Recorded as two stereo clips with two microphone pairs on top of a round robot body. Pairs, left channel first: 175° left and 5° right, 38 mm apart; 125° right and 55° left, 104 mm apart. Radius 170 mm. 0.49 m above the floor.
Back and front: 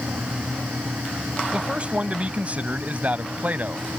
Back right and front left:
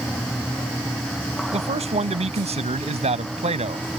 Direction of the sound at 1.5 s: 60° left.